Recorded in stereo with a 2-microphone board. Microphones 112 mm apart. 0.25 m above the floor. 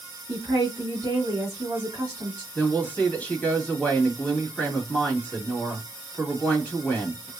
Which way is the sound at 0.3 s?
30° right (ahead or behind).